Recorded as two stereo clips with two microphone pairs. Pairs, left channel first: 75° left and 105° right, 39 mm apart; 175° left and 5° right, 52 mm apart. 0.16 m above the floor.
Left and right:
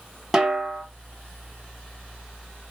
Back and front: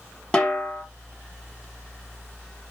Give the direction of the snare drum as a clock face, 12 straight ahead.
5 o'clock.